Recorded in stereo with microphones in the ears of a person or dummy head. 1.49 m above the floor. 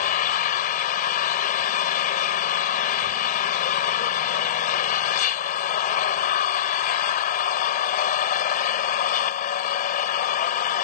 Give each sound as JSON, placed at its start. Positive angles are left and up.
{"t": 0.0, "sound": "an engine running", "side_deg": 45}